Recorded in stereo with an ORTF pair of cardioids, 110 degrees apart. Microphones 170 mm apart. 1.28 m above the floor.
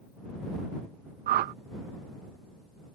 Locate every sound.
1.3 s a whoosh: 65° right